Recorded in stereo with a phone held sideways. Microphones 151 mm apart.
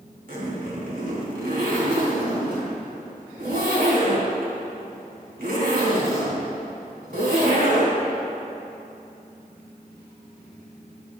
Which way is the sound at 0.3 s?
70° right (ahead or behind).